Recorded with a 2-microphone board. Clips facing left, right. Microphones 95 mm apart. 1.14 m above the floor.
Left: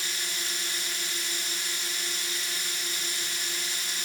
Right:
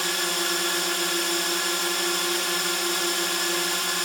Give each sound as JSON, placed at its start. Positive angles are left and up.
{"t": 0.0, "sound": "a drone", "side_deg": -70}